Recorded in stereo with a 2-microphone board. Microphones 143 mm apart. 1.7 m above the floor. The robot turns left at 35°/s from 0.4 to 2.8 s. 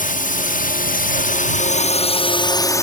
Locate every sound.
0.0 s a drone: 105° left; by 2.8 s 20° left